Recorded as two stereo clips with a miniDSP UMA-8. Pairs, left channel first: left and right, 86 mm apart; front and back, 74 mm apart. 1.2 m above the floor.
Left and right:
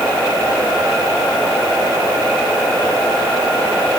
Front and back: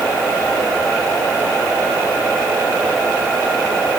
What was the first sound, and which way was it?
Only background noise.